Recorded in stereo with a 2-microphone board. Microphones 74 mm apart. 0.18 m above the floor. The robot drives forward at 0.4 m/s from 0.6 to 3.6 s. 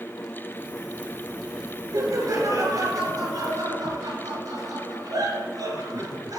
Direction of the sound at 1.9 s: 55° right (ahead or behind).